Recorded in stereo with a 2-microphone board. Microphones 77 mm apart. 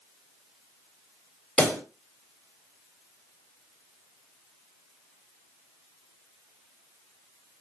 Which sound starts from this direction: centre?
A pop, at 1.6 s.